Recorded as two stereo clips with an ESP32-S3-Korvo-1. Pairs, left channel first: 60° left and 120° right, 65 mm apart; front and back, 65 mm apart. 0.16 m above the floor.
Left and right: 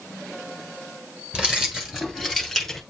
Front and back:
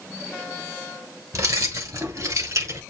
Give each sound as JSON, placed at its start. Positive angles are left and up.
{"t": 1.3, "sound": "keys jangling", "azimuth_deg": 165, "distance_m": 2.0}